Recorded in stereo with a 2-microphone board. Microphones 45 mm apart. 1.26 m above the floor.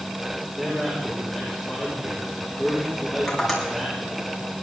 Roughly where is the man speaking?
Centre.